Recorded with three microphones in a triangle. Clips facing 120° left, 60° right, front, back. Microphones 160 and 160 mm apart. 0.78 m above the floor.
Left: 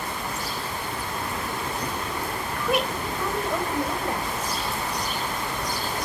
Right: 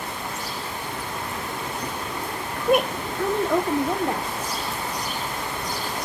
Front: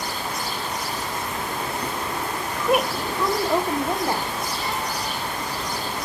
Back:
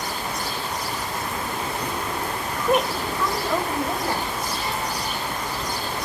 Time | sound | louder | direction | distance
2.6 | a woman speaking | right 5 dB, even | 90° right | 0.6 m